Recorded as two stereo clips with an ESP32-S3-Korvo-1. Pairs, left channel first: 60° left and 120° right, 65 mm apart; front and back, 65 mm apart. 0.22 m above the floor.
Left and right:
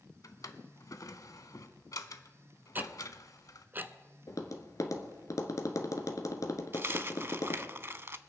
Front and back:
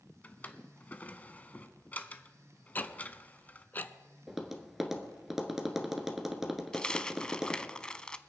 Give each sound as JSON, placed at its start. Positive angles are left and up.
{"t": 0.2, "sound": "a drawer", "azimuth_deg": 60, "distance_m": 0.7}
{"t": 2.8, "sound": "ticking", "azimuth_deg": -60, "distance_m": 0.7}
{"t": 4.3, "sound": "tapping", "azimuth_deg": 95, "distance_m": 1.4}
{"t": 6.7, "sound": "a dropped coin", "azimuth_deg": -75, "distance_m": 0.5}